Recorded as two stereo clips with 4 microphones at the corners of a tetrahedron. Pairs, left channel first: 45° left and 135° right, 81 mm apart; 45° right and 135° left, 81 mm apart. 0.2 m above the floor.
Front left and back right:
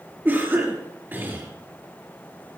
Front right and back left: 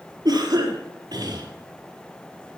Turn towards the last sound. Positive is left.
turn(degrees=160)